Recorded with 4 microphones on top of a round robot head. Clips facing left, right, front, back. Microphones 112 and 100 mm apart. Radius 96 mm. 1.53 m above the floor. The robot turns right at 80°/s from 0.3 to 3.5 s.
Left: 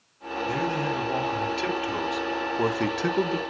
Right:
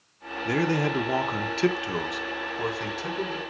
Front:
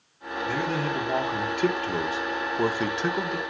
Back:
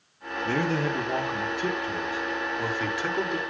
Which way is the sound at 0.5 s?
135° right.